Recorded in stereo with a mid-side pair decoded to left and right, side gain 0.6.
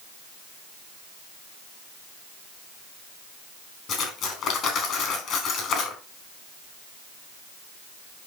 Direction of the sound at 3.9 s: 50° left.